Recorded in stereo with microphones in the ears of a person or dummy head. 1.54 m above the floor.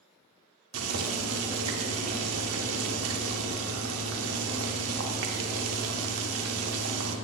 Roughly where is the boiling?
Right.